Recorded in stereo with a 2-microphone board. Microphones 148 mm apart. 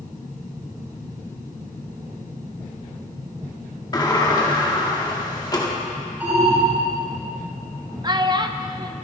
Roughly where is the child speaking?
Right.